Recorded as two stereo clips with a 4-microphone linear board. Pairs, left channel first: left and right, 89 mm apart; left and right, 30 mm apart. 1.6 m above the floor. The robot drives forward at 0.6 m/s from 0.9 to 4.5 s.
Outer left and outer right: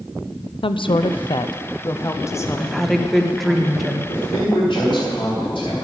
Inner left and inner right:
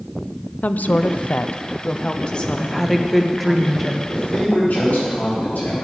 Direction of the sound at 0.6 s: 80° left.